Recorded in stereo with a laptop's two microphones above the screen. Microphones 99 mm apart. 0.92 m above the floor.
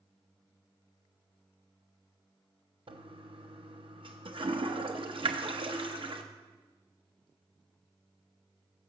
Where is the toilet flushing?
60° right (ahead or behind), 0.6 m.